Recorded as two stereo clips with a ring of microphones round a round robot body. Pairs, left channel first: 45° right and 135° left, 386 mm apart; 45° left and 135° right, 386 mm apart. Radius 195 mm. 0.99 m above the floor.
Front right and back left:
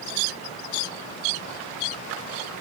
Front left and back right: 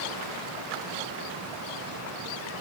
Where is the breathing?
I don't hear breathing.